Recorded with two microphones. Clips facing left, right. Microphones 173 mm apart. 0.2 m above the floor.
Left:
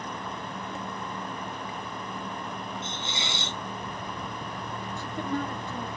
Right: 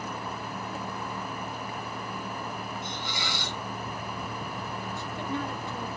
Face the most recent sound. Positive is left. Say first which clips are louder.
# left 3 dB
turn(degrees=55)  # may be behind; listen again after turning